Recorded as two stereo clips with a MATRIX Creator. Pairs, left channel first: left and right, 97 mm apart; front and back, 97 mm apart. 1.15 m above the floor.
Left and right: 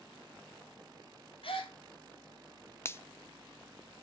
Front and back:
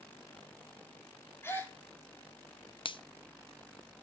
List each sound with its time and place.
1.4 s a gasp: 65° left, 2.5 m
2.9 s a finger snap: 25° left, 0.7 m